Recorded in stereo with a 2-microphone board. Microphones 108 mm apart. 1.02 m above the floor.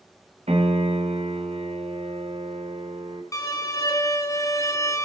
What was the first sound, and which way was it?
A piano, 85° right.